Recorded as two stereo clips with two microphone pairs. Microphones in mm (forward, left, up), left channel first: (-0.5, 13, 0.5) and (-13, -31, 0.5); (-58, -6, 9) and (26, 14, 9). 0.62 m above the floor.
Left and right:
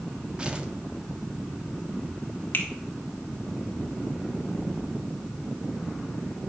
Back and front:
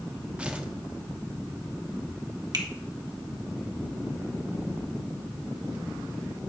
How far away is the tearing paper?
About 1.0 m.